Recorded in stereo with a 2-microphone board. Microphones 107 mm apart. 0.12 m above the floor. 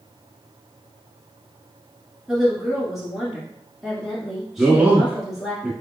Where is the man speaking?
10° right (ahead or behind), 1.3 m.